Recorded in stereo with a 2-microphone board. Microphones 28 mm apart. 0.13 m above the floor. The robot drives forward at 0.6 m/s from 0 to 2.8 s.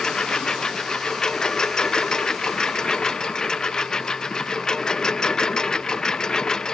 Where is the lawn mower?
25° left (ahead or behind).